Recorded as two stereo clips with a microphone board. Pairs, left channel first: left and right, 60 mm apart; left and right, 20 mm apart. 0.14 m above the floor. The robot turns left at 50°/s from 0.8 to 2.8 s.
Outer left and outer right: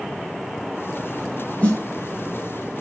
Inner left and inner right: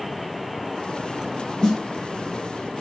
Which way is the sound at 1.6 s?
20° left (ahead or behind).